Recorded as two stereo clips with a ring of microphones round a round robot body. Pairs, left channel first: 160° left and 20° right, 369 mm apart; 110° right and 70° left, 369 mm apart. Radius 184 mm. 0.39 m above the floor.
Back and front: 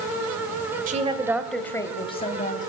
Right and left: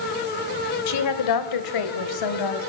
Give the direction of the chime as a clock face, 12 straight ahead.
No chime in this recording.